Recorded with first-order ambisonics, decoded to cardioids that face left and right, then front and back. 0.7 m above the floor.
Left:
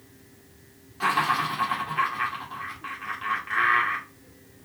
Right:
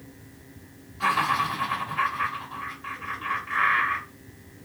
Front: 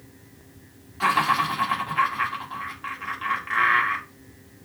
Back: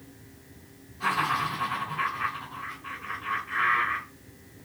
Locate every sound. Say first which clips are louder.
1.0 s laughter: even, front 5 dB; 20° left, 1.5 m